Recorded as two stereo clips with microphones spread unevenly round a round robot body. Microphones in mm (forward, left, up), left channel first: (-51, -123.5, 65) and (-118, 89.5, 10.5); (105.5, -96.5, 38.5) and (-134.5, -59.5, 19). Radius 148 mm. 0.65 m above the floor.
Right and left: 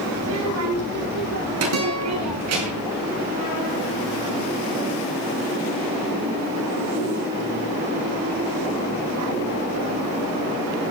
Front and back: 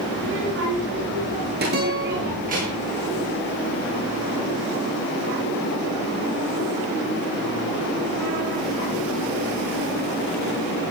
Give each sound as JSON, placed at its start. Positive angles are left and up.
{"t": 0.1, "sound": "a child speaking", "azimuth_deg": 120, "distance_m": 7.0}
{"t": 1.7, "sound": "a guitar", "azimuth_deg": 115, "distance_m": 6.5}